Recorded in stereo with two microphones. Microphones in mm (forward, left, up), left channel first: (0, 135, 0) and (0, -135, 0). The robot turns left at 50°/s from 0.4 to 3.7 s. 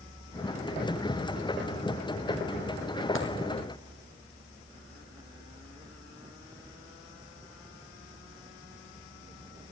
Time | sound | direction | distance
3.1 | a dropped coin | 50° left (ahead or behind) | 1.7 m